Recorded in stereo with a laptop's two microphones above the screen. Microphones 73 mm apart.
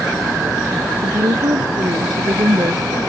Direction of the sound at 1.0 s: 65° right (ahead or behind).